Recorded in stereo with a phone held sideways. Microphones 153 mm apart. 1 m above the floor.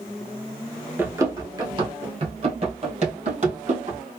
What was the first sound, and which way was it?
Running footsteps, 15° right (ahead or behind).